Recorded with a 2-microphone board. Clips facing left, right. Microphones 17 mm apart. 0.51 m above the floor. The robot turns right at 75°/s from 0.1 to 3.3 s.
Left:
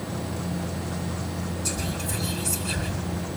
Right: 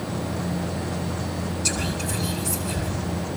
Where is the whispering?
50° right (ahead or behind), 5 m; by 2.9 s 45° left (ahead or behind), 5 m.